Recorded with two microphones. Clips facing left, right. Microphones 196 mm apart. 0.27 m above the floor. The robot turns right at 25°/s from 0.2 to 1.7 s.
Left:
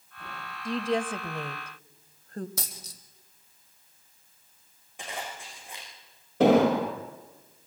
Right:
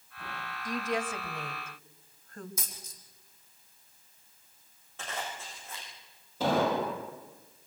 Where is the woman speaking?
30° left (ahead or behind), 1.1 m; by 2.5 s 35° left (ahead or behind), 1.1 m.